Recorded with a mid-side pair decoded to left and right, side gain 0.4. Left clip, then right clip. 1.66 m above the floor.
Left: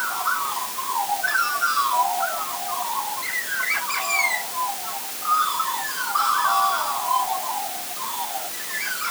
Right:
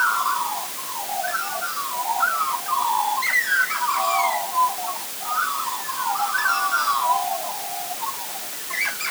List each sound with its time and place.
Only background noise.